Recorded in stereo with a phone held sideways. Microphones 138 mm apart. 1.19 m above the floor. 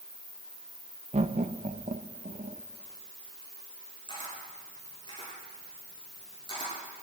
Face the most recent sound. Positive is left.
turn(degrees=35)  # may be behind; listen again after turning